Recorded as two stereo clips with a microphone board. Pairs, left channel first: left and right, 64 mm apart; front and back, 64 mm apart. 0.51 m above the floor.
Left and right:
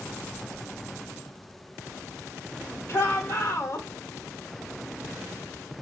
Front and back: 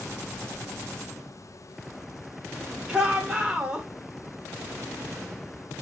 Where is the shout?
110° left, 1.4 m.